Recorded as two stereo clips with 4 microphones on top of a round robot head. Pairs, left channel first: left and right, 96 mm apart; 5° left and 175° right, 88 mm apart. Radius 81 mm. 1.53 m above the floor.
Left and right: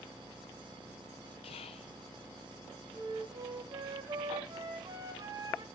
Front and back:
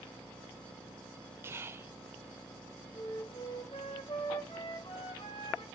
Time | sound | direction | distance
1.4 | whispering | 125° left | 0.9 m
2.9 | a flute | 45° right | 2 m